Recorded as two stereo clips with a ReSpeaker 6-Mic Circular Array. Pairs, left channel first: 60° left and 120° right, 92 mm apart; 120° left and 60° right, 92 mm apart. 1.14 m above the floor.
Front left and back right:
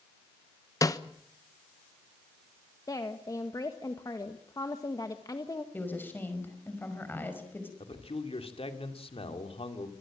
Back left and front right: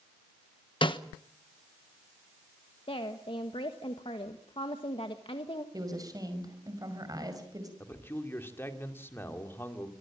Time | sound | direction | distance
0.8 | a snare drum | 110° left | 1.1 m
2.9 | a woman speaking | 110° left | 1.5 m
5.7 | a woman speaking | 10° right | 5.5 m
7.8 | a man speaking | 55° left | 2.5 m